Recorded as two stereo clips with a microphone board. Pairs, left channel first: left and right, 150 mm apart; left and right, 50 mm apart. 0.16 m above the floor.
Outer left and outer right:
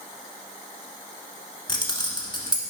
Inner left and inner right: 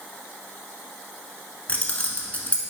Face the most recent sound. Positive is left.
turn(degrees=30)  # may be behind; listen again after turning